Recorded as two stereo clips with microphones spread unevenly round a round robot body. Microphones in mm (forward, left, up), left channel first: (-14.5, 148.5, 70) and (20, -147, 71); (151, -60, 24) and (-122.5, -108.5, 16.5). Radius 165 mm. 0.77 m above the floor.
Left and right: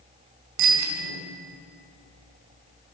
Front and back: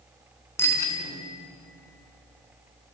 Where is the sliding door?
I don't hear a sliding door.